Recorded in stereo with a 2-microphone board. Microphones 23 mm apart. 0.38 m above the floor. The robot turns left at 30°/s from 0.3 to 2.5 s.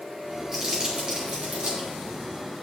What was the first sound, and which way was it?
Crumpling, 25° right (ahead or behind).